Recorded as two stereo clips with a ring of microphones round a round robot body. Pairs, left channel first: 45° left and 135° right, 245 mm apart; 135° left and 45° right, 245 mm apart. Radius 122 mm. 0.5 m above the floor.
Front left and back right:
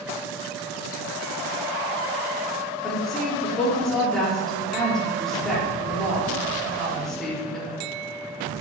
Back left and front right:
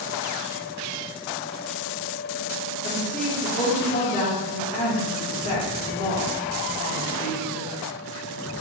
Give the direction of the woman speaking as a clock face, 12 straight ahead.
8 o'clock.